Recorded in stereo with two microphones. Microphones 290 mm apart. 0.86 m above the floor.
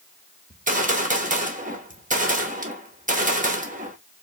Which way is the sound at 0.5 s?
25° right (ahead or behind).